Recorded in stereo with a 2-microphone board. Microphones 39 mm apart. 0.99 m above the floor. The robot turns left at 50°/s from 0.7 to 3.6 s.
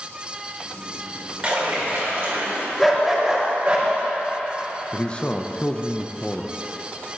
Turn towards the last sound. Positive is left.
turn(degrees=20)  # may be behind; listen again after turning